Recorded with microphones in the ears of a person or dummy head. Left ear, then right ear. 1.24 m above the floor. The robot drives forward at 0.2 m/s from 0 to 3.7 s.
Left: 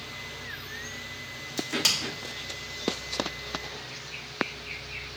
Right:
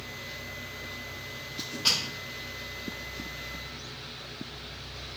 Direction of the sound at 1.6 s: 60° left (ahead or behind).